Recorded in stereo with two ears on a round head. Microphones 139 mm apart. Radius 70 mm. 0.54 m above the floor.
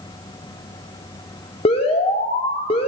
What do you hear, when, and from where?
1.6 s an alarm: 40° left (ahead or behind), 1.1 m